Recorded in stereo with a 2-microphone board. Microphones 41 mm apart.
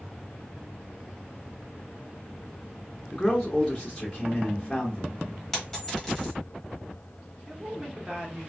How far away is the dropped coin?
About 1.3 m.